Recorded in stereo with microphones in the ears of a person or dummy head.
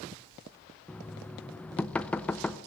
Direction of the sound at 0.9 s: 5° left (ahead or behind).